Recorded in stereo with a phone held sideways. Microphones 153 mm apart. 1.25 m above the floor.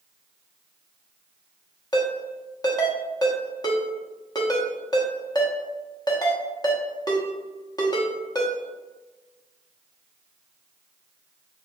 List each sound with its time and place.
1.9 s a ringtone: 25° left (ahead or behind), 0.9 m